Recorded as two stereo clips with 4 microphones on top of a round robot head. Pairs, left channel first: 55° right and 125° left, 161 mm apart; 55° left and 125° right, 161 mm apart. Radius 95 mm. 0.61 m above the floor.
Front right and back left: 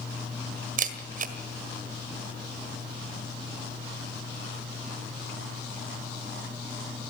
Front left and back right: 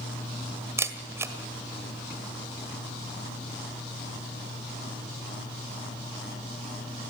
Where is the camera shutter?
165° left, 1.7 m.